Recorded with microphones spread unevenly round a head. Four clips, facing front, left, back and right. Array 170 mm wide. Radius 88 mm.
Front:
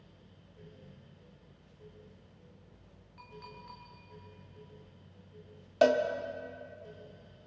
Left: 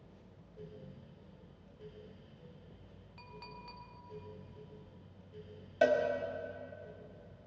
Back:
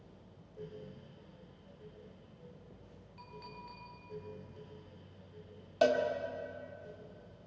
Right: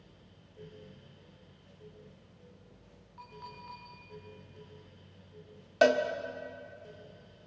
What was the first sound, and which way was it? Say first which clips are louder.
A clink: right 4 dB, even; 100° left.